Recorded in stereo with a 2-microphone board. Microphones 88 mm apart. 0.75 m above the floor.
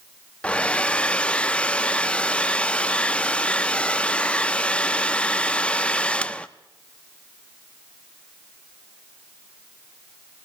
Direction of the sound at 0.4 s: 15° left (ahead or behind).